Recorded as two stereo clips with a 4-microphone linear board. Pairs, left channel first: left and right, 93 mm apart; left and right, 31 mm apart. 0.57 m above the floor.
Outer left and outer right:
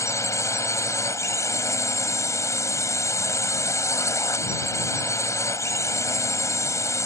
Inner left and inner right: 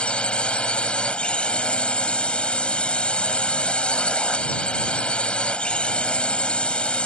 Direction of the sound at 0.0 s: 35° left (ahead or behind).